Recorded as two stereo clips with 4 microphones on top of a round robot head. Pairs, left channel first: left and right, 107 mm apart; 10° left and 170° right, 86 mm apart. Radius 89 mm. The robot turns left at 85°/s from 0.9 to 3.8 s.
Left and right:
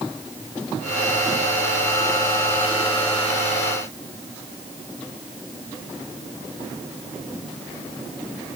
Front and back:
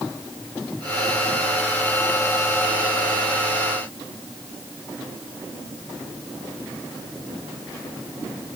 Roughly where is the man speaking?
No man speaking in this recording.